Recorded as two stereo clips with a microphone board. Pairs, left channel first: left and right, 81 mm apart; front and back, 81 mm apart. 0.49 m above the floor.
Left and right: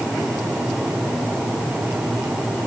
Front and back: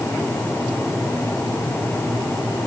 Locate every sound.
Only background noise.